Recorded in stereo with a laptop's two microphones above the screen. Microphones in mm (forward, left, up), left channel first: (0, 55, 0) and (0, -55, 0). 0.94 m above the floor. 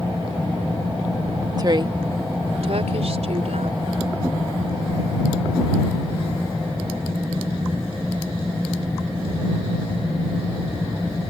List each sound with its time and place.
1.6 s a woman speaking: 35° right (ahead or behind); by 3.9 s 80° right